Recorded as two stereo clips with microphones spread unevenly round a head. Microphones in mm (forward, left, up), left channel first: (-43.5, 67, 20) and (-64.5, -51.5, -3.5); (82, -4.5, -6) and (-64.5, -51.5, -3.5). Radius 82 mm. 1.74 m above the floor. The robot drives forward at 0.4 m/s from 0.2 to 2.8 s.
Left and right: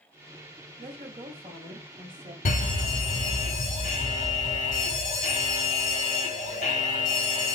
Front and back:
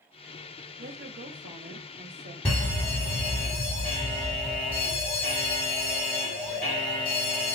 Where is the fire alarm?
95° left, 1.7 m; by 7.6 s 100° left, 1.7 m.